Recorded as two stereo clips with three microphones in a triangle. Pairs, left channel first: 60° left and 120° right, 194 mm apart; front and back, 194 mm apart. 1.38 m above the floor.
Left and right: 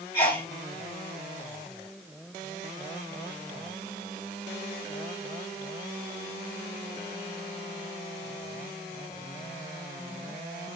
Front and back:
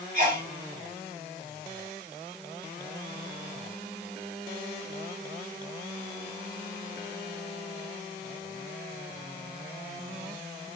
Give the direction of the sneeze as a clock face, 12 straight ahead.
8 o'clock.